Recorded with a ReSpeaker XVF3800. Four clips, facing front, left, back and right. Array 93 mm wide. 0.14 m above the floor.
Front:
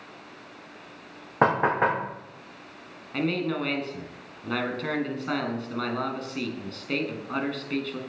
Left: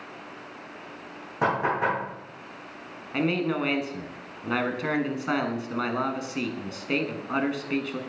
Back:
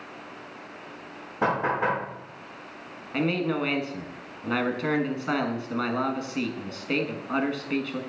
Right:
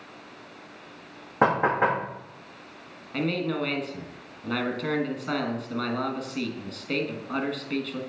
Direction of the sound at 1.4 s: 30° right.